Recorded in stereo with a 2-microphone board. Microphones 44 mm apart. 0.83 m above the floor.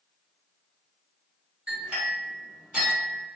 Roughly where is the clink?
Right.